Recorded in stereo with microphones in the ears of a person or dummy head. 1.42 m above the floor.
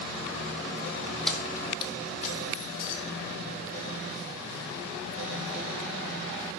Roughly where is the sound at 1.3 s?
Centre.